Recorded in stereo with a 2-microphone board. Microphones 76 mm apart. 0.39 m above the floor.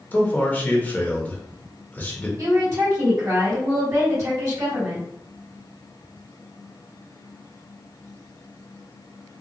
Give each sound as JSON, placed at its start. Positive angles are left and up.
{"t": 0.1, "sound": "a man speaking", "side_deg": 25, "distance_m": 0.8}
{"t": 2.4, "sound": "a woman speaking", "side_deg": -45, "distance_m": 1.8}